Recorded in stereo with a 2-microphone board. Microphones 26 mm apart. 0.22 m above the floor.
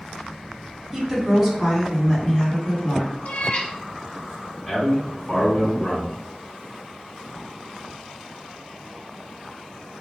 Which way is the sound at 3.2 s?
50° left (ahead or behind).